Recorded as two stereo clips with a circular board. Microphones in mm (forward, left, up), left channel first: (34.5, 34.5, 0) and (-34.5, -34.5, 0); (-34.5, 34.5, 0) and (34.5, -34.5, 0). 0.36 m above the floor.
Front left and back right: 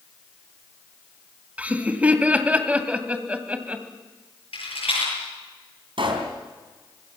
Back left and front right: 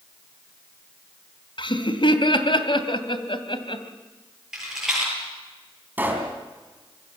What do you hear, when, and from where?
1.6 s laughter: 150° left, 2 m
4.5 s a rattle: 40° left, 9 m
6.0 s a pop: 115° right, 3.5 m